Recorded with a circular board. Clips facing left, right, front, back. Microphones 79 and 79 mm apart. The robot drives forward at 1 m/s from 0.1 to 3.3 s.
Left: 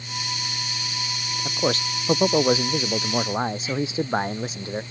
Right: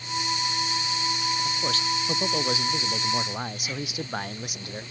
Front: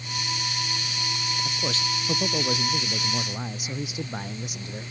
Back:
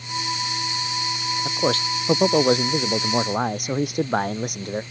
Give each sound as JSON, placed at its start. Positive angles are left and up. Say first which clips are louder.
{"t": 1.4, "sound": "a man speaking", "louder": "left 3 dB, back 11 dB", "azimuth_deg": 140}